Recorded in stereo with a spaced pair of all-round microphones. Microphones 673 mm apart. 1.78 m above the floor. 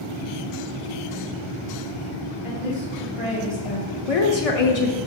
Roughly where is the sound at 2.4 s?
Left.